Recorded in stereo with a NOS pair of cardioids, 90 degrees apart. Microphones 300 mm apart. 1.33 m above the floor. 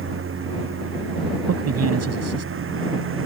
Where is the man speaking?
55° right.